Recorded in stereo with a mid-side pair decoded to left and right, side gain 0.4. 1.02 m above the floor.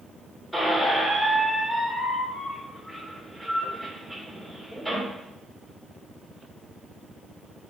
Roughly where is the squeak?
Ahead.